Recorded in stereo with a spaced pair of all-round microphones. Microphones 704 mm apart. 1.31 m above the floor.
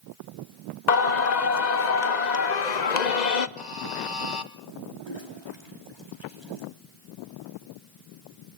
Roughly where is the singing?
Left.